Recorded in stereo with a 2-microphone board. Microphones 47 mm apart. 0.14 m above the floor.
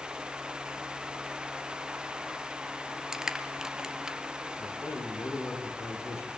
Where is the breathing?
No breathing in this recording.